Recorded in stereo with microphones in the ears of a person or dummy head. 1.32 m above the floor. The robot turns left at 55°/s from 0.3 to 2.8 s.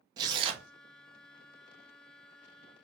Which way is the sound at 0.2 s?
20° right (ahead or behind).